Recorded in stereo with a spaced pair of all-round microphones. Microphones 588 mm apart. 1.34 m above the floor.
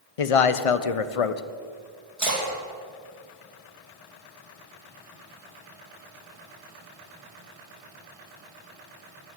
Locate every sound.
0.2 s a man speaking: 70° left (ahead or behind), 0.6 m
2.2 s a splash: 65° right (ahead or behind), 2.5 m